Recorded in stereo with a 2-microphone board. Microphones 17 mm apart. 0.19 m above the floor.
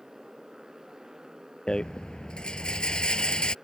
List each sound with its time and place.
0.0 s a motorcycle: 35° right (ahead or behind)
1.7 s a rattle: 60° left (ahead or behind)